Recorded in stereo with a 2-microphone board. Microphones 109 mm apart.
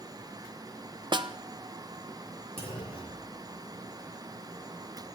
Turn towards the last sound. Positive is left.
turn(degrees=65)  # may be behind; listen again after turning